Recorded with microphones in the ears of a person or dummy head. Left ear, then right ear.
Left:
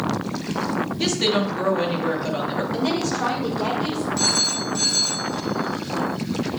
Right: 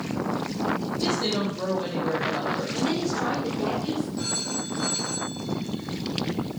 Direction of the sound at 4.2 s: 80° left.